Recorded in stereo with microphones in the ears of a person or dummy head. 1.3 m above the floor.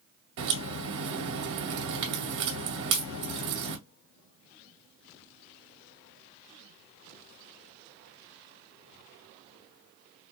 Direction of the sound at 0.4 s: 65° right (ahead or behind).